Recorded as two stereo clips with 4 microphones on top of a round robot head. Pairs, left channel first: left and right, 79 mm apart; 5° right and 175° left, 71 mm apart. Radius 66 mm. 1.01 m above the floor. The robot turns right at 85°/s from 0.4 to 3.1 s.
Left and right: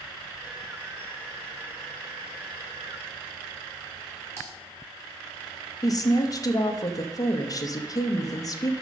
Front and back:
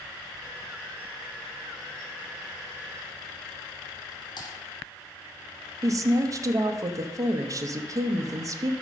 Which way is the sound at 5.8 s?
135° left.